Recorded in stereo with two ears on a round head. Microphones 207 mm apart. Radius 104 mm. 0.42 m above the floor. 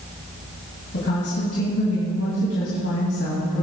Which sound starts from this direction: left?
A woman speaking, at 0.9 s.